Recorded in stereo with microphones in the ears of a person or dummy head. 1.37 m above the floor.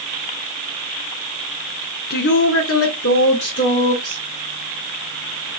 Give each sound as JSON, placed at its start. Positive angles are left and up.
{"t": 2.1, "sound": "a woman speaking", "side_deg": 50, "distance_m": 0.7}